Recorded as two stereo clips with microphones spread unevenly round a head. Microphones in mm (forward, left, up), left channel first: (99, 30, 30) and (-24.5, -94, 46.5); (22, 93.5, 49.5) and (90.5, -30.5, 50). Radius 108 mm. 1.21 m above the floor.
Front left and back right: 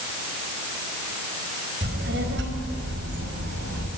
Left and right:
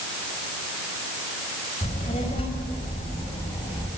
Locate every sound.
1.8 s a child speaking: straight behind, 4 m; by 3.9 s 165° right, 5 m